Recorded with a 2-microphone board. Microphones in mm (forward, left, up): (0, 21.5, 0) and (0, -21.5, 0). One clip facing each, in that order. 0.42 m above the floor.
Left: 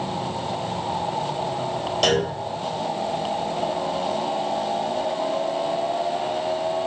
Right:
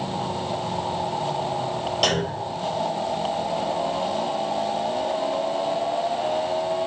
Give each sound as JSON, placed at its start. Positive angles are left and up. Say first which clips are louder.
{"t": 2.0, "sound": "a clunk", "louder": "left 3 dB", "side_deg": -5, "distance_m": 1.3}